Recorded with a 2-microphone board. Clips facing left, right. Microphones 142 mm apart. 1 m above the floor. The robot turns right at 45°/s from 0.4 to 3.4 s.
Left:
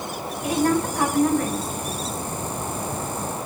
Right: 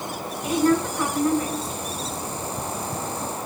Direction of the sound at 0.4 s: 65° left.